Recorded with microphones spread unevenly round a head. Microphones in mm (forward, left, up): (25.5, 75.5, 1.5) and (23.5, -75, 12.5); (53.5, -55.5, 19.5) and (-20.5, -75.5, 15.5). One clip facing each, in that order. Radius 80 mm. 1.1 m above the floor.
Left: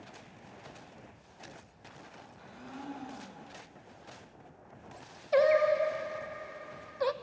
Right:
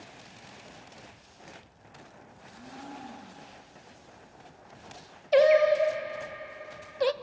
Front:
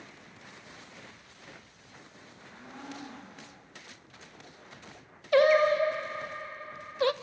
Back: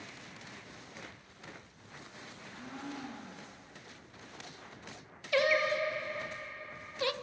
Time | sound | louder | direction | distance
2.4 | a blender | even, back 1 dB | 90° left | 3.5 m
5.3 | singing | right 4 dB, front 8 dB | 30° right | 0.8 m